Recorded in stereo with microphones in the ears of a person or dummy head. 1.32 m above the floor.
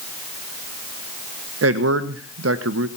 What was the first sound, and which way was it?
A man speaking, 80° right.